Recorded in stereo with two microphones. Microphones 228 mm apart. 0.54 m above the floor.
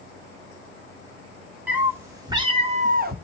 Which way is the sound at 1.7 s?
5° right (ahead or behind).